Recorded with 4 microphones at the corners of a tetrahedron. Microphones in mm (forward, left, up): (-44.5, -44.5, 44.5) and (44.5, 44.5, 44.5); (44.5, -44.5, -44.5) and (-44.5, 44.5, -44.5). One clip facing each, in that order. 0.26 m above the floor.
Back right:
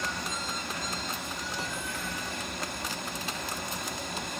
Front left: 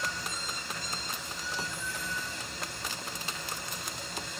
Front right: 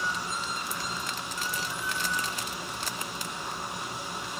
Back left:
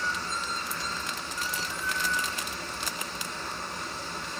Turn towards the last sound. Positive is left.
turn(degrees=-120)